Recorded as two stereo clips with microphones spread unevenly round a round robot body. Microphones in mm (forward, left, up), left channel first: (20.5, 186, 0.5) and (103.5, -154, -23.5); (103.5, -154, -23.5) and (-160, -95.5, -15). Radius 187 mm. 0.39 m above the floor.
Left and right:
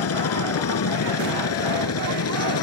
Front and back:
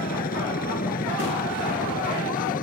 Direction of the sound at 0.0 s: 55° left.